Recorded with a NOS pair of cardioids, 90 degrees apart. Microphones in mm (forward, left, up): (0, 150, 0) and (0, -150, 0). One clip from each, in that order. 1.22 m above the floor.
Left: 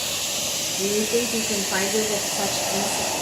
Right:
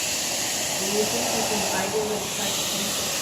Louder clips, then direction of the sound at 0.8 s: Left 3 dB; 45° left.